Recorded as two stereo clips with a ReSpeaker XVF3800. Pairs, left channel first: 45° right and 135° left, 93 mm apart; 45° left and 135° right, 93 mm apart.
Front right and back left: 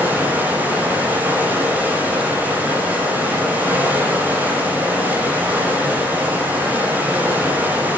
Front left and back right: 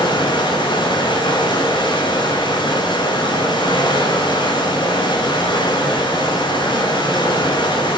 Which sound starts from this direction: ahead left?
Running water, at 0.0 s.